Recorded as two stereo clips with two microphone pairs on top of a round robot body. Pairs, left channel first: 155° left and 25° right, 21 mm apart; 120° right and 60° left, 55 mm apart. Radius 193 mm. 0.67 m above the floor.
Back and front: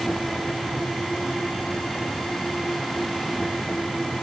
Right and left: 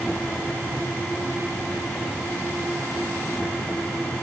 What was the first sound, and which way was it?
Only background noise.